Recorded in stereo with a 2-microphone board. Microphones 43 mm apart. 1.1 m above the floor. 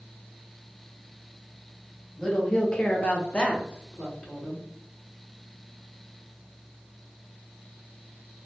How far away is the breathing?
I don't hear breathing.